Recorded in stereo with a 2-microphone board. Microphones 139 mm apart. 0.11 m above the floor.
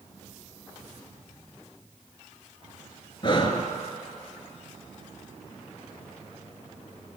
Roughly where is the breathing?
Left.